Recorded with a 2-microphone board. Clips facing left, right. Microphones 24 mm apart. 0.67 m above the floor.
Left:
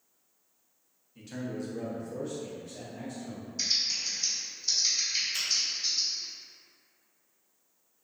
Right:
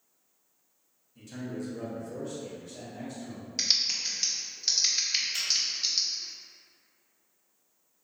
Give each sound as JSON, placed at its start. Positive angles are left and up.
{"t": 1.1, "sound": "a man speaking", "side_deg": 20, "distance_m": 0.7}
{"t": 3.6, "sound": "typing on a keyboard", "side_deg": -75, "distance_m": 0.6}
{"t": 5.3, "sound": "a finger snap", "side_deg": -5, "distance_m": 1.4}